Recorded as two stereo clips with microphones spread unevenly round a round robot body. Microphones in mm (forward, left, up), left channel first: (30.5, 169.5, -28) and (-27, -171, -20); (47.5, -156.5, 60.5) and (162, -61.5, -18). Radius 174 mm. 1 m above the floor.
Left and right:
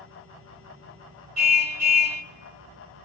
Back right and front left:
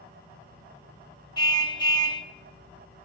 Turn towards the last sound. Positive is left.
turn(degrees=-80)